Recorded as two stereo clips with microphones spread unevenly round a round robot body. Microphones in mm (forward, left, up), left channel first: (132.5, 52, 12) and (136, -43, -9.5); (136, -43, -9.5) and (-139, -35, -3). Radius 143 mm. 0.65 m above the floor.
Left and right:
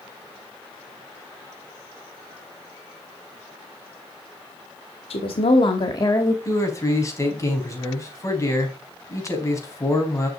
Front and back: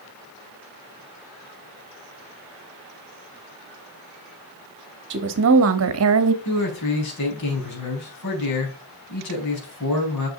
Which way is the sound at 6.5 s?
35° left.